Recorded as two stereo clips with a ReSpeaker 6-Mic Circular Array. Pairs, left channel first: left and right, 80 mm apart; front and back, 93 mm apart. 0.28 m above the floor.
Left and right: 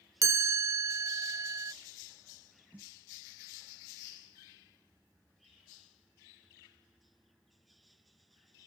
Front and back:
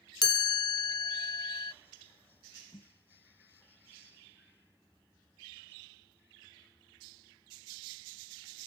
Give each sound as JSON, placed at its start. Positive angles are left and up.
{"t": 0.2, "sound": "a chime", "azimuth_deg": -40}
{"t": 2.7, "sound": "a snare drum", "azimuth_deg": -20}